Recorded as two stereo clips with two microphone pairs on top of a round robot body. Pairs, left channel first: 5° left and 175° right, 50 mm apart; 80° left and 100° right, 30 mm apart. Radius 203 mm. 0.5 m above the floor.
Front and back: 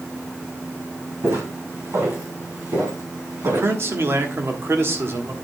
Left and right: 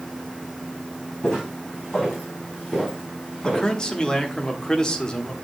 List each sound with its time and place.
1.2 s footsteps: 150° left, 2 m; by 3.7 s 165° left, 3.5 m
3.4 s a man speaking: 150° left, 1.7 m